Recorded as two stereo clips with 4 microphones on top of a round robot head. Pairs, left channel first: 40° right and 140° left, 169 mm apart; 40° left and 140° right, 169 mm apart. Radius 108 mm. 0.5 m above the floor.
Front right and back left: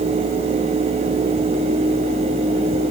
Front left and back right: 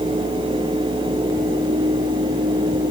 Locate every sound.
Only background noise.